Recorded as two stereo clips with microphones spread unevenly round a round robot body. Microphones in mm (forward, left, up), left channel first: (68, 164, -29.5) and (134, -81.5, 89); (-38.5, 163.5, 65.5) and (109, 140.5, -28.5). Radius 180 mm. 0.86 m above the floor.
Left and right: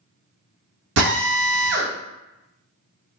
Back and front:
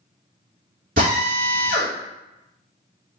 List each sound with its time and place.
1.0 s a drill: 75° right, 0.9 m